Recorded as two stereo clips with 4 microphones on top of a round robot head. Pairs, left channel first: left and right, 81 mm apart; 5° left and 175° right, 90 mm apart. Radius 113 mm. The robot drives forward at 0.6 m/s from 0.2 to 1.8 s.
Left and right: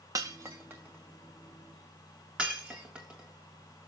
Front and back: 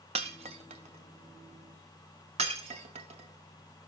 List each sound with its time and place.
0.1 s breaking glass: 150° right, 0.7 m; by 3.9 s 170° right, 1.5 m